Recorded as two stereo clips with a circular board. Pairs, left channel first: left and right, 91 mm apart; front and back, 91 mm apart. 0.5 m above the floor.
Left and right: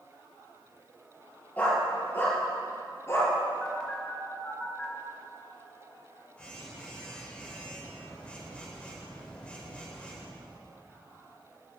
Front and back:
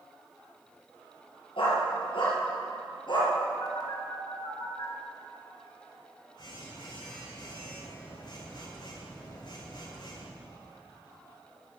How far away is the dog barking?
About 4 m.